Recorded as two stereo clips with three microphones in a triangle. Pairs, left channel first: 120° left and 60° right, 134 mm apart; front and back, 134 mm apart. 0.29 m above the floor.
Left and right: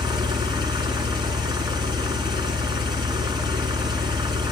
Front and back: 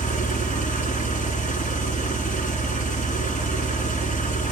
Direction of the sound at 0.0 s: Straight ahead.